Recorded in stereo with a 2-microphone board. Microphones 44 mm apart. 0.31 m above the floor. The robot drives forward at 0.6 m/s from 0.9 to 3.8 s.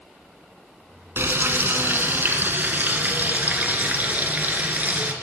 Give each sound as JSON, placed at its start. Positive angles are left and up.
{"t": 1.2, "sound": "frying", "side_deg": -60, "distance_m": 2.0}